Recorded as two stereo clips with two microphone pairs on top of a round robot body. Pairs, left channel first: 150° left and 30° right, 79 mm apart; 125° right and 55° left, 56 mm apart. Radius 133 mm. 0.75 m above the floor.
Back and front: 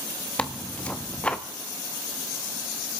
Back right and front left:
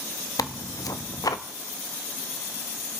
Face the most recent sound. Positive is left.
turn(degrees=-130)